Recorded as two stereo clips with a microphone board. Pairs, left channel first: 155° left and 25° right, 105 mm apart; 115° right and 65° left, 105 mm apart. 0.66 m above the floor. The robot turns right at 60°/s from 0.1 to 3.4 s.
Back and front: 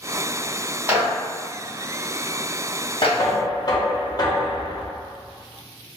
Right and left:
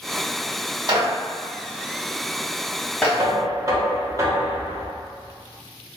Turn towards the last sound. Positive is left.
turn(degrees=115)